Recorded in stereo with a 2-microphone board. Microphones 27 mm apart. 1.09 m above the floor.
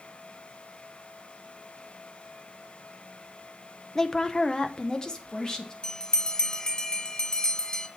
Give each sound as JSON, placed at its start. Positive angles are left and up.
{"t": 4.0, "sound": "a woman speaking", "side_deg": 20, "distance_m": 0.5}
{"t": 5.8, "sound": "a bell", "side_deg": 25, "distance_m": 0.7}